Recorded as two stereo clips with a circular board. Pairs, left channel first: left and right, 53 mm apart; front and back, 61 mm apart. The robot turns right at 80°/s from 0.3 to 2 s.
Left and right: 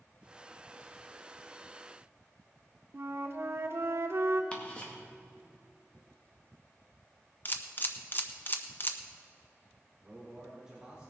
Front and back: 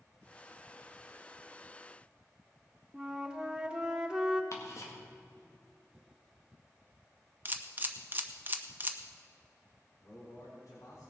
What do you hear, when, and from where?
2.9 s a flute: 110° right, 1.0 m
4.5 s ticking: 25° left, 2 m
7.5 s a camera shutter: 130° left, 0.9 m
10.0 s a man speaking: 15° right, 4 m